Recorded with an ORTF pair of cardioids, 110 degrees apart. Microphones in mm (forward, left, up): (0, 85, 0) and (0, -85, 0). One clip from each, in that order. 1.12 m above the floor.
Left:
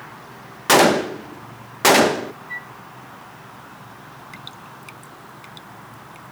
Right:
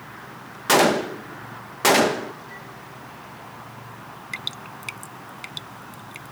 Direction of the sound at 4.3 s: 50° right.